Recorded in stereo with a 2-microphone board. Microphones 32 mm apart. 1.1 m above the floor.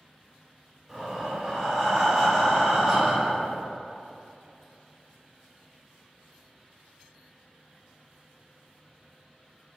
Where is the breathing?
15° right (ahead or behind), 1.8 m.